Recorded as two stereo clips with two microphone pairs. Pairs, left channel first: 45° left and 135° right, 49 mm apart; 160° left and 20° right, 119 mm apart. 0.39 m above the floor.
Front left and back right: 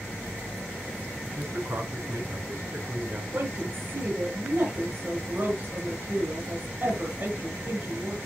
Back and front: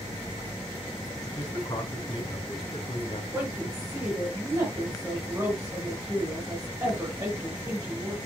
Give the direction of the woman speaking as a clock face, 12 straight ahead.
3 o'clock.